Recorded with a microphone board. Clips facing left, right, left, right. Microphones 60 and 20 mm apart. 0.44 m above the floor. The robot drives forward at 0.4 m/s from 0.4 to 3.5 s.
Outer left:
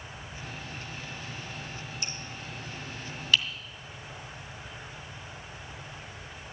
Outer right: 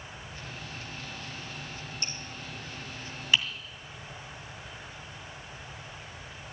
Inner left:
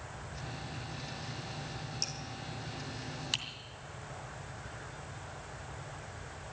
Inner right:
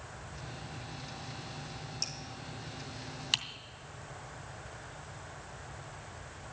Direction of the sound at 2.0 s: 5° left (ahead or behind).